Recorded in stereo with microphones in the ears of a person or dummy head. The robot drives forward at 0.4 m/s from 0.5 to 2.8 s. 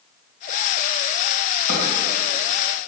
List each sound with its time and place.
1.7 s a drawer: 40° left (ahead or behind), 2 m